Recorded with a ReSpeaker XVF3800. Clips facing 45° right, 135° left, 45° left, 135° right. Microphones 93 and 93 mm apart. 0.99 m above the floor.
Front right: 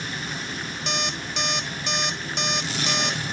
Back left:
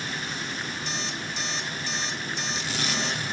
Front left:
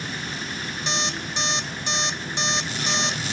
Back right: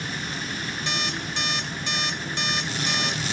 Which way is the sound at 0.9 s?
25° right.